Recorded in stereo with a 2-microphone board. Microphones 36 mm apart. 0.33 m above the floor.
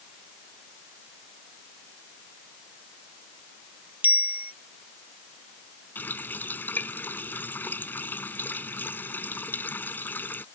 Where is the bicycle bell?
50° right (ahead or behind).